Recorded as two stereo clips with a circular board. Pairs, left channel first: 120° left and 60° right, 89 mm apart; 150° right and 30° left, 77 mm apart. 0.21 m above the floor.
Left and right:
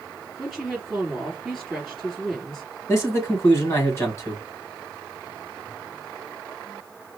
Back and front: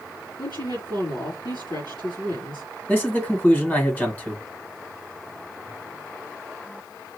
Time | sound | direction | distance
0.4 | a woman speaking | 155° right | 3.5 m
2.9 | a man speaking | 155° left | 1.6 m